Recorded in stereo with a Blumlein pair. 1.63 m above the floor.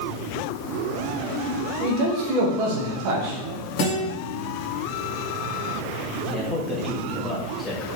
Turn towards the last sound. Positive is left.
turn(degrees=10)